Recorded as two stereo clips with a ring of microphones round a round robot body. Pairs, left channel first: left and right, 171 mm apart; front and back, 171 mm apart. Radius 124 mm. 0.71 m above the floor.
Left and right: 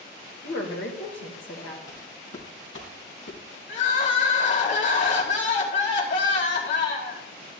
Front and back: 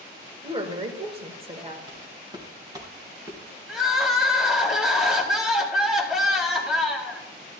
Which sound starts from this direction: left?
Crying, at 3.7 s.